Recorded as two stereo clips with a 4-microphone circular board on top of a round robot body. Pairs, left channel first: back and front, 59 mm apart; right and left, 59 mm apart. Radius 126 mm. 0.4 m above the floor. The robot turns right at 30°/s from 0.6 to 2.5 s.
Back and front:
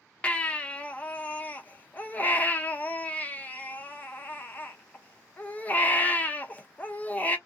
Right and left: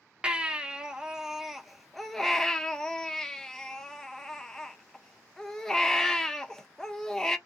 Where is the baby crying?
140° left, 1.0 m; by 7.4 s 160° right, 1.0 m.